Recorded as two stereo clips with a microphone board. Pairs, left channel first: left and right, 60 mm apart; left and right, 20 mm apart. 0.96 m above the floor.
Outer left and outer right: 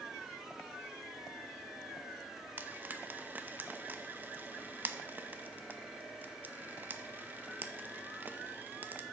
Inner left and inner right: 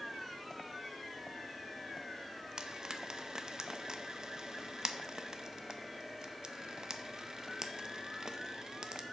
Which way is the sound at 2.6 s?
30° right (ahead or behind).